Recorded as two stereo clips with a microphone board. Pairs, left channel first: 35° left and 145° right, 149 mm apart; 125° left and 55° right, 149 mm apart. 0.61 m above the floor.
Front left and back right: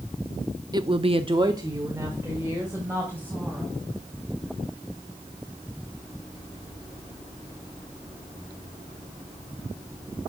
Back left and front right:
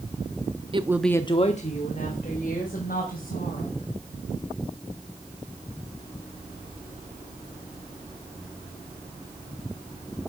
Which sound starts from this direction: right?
A woman speaking, at 0.7 s.